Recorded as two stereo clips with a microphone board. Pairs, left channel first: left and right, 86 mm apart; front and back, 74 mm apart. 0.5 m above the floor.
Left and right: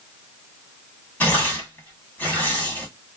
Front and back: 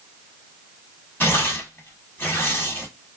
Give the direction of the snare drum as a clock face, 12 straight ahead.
I don't hear a snare drum.